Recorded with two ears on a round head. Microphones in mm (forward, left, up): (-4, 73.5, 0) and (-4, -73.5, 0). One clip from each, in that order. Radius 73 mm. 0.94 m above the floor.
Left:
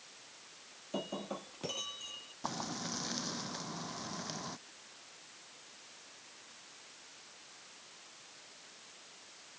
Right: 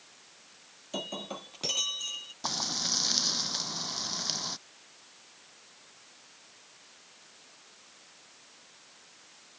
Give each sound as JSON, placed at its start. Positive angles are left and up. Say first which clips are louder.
{"t": 0.9, "sound": "breaking glass", "louder": "right 4 dB", "side_deg": -75}
{"t": 2.4, "sound": "frying", "louder": "right 9 dB", "side_deg": -75}